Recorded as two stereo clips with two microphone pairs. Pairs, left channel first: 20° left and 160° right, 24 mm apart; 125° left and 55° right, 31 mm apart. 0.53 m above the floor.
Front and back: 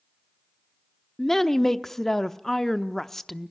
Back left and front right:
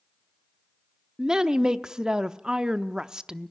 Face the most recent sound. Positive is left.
turn(degrees=-35)